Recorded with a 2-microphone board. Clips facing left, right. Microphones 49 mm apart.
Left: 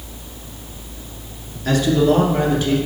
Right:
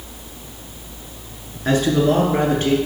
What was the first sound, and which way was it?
A man speaking, 25° right (ahead or behind).